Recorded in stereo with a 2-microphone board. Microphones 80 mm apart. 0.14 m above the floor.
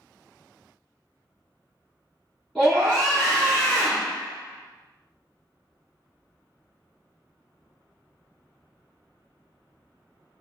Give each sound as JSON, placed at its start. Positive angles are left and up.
{"t": 2.5, "sound": "a scream", "side_deg": 0, "distance_m": 1.7}